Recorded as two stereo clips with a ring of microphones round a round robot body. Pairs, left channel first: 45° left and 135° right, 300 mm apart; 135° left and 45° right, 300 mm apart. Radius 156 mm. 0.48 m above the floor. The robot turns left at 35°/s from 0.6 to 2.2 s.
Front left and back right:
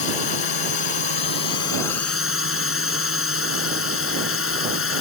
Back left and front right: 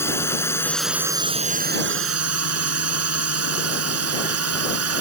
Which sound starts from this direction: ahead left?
A drone, at 0.0 s.